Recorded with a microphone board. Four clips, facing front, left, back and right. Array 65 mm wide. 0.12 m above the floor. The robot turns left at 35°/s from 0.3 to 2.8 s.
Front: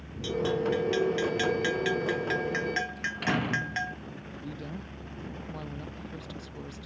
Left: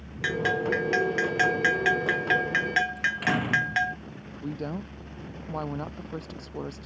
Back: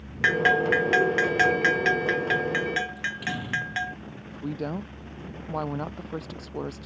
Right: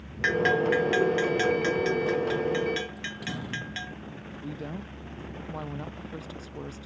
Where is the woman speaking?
155° left.